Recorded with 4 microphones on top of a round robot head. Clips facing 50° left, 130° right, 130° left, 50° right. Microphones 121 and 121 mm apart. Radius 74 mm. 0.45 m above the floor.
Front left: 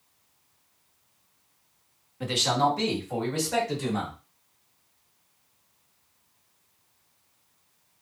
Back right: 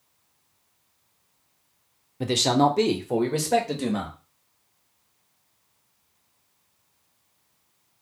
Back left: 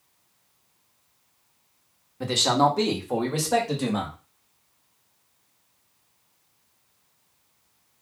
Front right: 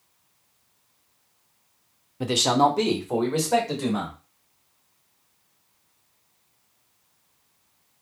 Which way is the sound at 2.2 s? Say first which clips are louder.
Back right 4 dB, front right 1 dB; 115° right.